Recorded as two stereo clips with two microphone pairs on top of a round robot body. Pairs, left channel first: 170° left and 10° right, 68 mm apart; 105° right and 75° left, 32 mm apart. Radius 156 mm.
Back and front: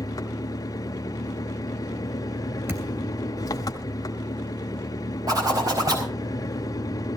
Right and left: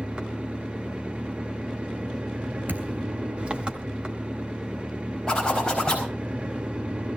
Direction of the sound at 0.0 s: 135° left.